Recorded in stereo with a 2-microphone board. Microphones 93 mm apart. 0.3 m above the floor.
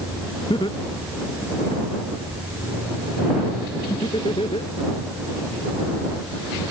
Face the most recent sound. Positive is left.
turn(degrees=75)  # may be behind; listen again after turning